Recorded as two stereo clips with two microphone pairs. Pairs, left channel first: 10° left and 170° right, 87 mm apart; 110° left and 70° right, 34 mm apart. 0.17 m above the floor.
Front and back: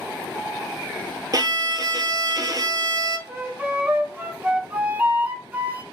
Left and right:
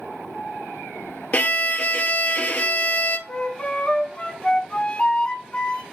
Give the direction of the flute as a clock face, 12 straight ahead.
8 o'clock.